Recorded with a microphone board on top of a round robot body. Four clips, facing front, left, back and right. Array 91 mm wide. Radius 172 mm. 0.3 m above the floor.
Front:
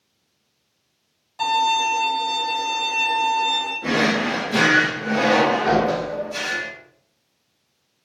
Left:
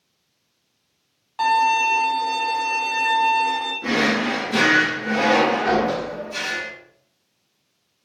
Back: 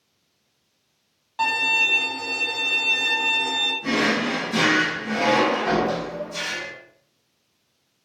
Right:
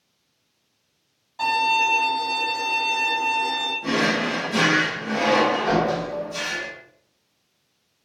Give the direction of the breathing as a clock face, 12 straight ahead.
No breathing in this recording.